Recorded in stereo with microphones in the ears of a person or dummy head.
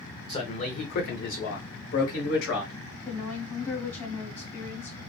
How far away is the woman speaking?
About 0.8 m.